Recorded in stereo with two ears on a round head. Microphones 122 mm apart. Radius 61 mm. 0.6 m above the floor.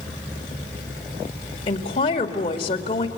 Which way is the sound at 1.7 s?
40° left (ahead or behind).